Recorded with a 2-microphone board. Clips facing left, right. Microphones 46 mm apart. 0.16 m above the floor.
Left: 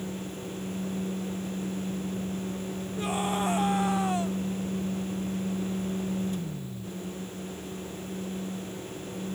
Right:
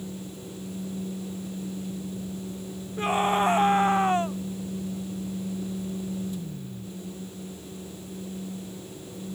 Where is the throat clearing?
I don't hear throat clearing.